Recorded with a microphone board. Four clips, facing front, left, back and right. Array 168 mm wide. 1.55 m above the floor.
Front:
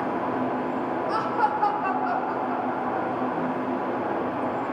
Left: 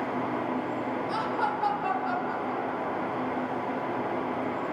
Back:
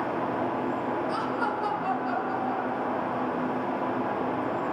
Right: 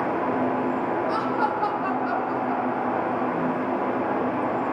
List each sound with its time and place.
1.1 s laughter: 35° right, 3.5 m; by 3.6 s 40° right, 5 m